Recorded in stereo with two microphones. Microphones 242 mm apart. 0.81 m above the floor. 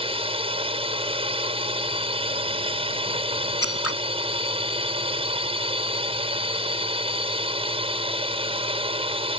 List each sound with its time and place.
0.0 s a drone: 25° right (ahead or behind)
3.6 s scissors: 75° left (ahead or behind)